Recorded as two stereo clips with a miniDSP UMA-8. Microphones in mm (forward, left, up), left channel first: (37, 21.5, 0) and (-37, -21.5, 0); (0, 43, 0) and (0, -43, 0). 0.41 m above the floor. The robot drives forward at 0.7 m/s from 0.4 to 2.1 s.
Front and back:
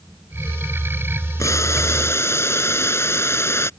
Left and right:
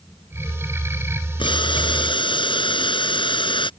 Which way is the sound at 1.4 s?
80° left.